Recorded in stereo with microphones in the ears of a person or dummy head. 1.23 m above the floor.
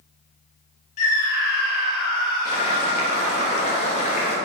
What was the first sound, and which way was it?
A scream, 45° left (ahead or behind).